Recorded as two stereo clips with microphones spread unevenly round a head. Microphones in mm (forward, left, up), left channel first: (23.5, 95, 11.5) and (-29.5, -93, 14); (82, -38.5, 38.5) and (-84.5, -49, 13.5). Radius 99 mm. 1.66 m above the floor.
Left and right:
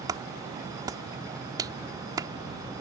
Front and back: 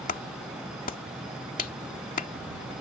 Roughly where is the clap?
Ahead right.